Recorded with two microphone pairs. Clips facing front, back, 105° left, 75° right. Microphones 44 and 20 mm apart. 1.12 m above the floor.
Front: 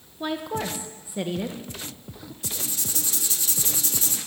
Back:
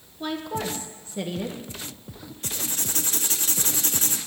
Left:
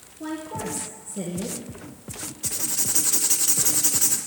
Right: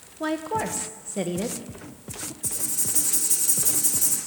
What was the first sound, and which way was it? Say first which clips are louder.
A woman speaking: front 1 dB, right 5 dB; 70° right.